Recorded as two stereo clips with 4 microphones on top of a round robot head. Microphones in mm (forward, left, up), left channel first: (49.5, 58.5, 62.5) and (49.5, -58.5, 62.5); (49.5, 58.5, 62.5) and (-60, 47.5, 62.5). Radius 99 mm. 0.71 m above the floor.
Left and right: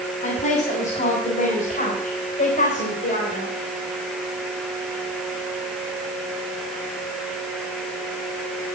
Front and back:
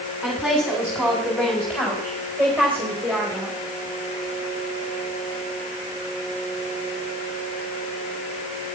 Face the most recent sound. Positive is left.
turn(degrees=80)